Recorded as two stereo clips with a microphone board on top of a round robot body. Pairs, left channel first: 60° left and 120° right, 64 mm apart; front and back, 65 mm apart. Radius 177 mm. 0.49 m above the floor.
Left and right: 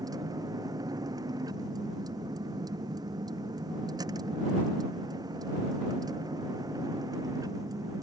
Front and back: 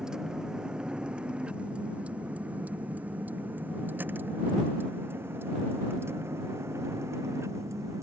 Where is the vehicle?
100° right; by 8.0 s 140° right.